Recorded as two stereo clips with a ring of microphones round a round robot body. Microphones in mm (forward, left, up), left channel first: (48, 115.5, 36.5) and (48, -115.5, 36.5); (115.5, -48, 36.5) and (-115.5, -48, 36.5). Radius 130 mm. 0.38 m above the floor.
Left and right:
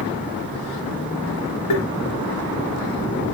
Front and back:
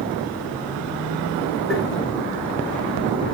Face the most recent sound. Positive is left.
turn(degrees=90)